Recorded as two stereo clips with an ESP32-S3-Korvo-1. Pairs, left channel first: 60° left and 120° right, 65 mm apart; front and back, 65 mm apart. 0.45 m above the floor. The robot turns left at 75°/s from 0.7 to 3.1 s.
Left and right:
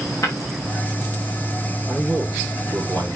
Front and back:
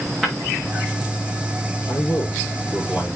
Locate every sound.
0.2 s breaking glass: 90° left, 6 m
1.9 s a man speaking: 10° right, 6.5 m; by 3.2 s 100° right, 6.5 m